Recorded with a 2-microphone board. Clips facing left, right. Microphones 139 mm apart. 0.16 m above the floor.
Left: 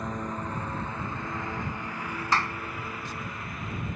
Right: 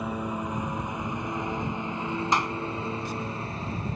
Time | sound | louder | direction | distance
0.0 | a lawn mower | right 3 dB | 10° right (ahead or behind) | ?
2.3 | a clap | even | 20° right (ahead or behind) | ?